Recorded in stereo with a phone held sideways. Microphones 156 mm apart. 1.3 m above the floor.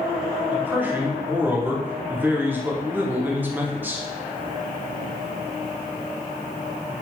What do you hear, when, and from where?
0.5 s a man speaking: 10° right (ahead or behind), 0.6 m